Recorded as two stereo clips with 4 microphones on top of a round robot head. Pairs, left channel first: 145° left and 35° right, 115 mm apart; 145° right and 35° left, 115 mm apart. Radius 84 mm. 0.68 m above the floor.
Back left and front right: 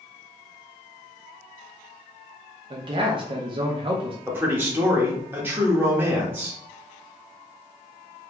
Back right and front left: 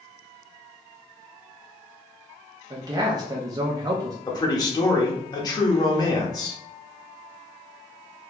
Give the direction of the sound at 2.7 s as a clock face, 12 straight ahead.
12 o'clock.